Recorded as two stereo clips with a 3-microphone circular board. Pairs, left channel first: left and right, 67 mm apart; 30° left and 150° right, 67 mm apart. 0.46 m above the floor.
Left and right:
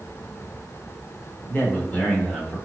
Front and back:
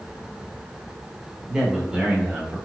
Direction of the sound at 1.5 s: 135° left.